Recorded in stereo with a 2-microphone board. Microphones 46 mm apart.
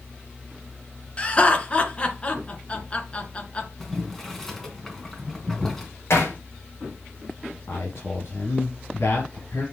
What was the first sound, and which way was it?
Laughter, 25° left (ahead or behind).